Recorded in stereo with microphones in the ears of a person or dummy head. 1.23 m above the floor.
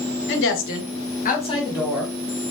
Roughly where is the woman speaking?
Left.